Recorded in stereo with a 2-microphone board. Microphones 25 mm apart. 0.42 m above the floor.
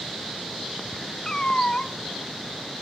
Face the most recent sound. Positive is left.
turn(degrees=30)  # may be behind; listen again after turning